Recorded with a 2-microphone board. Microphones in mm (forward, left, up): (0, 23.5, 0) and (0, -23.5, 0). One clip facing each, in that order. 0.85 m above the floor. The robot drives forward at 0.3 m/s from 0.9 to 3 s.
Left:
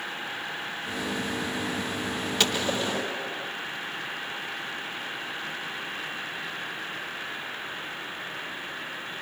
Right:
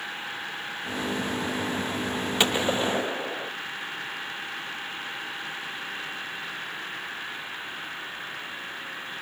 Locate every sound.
2.4 s a gunshot: 25° right (ahead or behind), 0.8 m; by 3.5 s 30° right (ahead or behind), 0.6 m